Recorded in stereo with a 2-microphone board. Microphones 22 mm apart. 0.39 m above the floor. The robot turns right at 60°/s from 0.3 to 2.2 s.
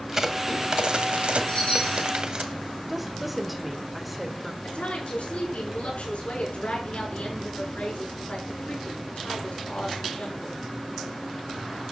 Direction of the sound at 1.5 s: 45° left.